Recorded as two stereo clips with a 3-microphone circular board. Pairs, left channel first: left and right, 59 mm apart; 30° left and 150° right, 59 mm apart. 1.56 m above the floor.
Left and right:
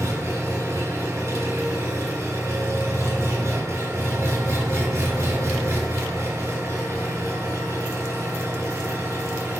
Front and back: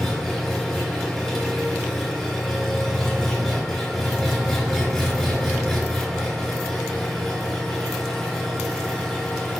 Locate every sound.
0.0 s an engine running: 60° right, 4 m